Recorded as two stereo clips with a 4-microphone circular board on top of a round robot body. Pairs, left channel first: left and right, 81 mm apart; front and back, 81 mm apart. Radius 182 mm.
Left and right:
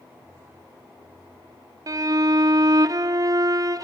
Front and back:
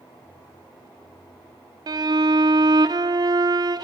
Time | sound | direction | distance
1.9 | a violin | 140° right | 0.5 m